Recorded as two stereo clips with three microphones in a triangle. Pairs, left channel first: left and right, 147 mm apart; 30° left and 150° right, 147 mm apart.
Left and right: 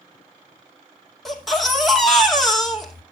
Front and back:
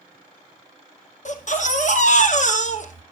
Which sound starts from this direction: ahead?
A baby crying, at 1.2 s.